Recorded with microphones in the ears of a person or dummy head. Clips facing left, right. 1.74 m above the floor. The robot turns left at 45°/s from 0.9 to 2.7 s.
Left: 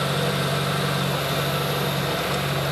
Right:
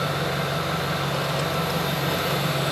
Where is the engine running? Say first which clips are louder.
Left 2 dB; 50° left, 1.7 m; by 2.7 s 30° right, 1.7 m.